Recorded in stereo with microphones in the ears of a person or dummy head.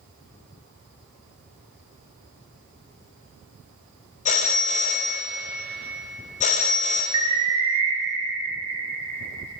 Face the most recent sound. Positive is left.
turn(degrees=-25)  # may be behind; listen again after turning